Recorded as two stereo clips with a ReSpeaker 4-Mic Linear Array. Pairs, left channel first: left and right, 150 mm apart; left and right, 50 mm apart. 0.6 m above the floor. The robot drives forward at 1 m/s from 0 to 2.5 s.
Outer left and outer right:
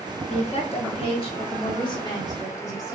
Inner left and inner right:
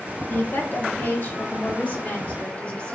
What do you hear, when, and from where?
0.3 s a woman speaking: 40° left (ahead or behind), 1.3 m; by 2.9 s 25° left (ahead or behind), 2 m